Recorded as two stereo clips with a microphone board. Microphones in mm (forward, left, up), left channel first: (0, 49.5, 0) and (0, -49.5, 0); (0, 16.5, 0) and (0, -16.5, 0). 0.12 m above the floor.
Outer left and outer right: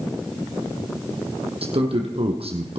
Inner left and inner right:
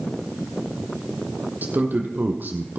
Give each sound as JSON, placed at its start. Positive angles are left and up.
{"t": 1.6, "sound": "a man speaking", "side_deg": -75, "distance_m": 3.5}